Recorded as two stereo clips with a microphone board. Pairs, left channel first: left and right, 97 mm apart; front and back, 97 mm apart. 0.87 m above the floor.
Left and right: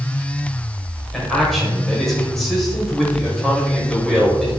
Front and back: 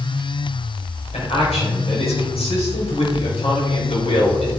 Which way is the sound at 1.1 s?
Straight ahead.